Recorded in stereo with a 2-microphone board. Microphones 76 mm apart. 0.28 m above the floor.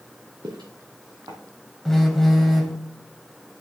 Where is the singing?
No singing in this recording.